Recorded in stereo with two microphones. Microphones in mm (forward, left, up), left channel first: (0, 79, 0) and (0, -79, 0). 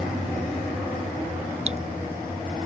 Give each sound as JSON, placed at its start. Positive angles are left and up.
{"t": 1.7, "sound": "dripping", "side_deg": -45}